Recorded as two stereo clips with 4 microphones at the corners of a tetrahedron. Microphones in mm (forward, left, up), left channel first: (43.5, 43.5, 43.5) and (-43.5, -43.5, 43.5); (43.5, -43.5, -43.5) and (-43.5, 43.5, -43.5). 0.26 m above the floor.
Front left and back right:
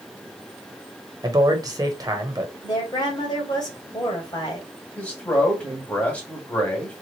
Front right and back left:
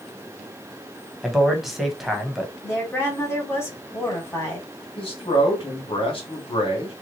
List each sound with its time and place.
1.2 s a man speaking: 140° right, 1.0 m
2.6 s a woman speaking: 15° left, 1.8 m
5.0 s a man speaking: 30° right, 1.7 m